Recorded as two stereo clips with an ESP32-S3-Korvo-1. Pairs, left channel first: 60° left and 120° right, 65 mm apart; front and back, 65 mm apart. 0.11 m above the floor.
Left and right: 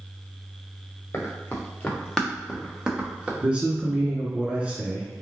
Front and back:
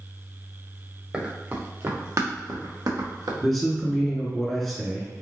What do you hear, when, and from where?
1.1 s running footsteps: 105° left, 1.1 m; by 3.3 s 165° left, 1.6 m
3.4 s a man speaking: 85° right, 1.1 m